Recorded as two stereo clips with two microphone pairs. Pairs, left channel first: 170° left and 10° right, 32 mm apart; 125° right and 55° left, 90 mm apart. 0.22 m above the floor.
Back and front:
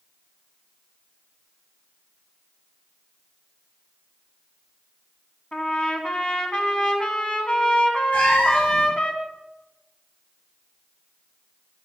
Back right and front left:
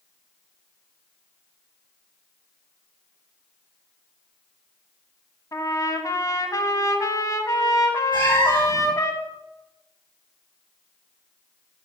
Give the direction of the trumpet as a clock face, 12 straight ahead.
5 o'clock.